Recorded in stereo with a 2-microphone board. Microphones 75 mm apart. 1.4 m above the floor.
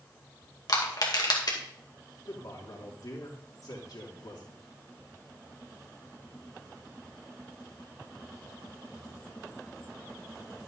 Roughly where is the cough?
I don't hear a cough.